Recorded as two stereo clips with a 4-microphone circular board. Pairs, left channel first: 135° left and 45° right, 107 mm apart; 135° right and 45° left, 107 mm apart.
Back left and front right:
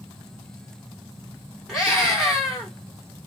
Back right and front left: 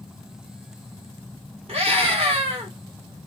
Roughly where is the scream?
Ahead left.